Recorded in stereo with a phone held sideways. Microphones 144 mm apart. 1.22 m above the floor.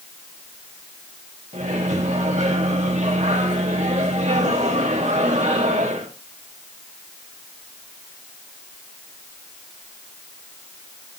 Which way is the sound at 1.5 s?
55° right (ahead or behind).